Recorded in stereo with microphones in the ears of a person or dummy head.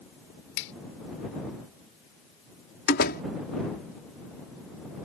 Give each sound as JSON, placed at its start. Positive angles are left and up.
{"t": 0.6, "sound": "a finger snap", "side_deg": 60}
{"t": 2.9, "sound": "a door slam", "side_deg": 60}